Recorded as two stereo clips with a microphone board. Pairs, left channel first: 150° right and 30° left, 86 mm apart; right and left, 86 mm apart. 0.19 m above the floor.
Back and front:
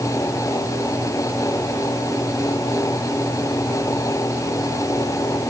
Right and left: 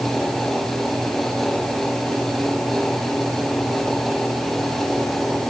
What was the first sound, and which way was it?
Only background noise.